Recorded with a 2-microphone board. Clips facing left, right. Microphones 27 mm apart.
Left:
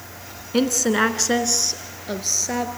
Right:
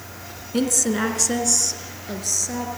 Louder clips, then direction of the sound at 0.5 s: Left 3 dB; 30° left (ahead or behind).